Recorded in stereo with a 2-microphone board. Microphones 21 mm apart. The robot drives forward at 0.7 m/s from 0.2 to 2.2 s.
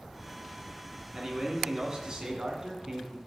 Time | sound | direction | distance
1.1 | a man speaking | 35° right (ahead or behind) | 2.5 m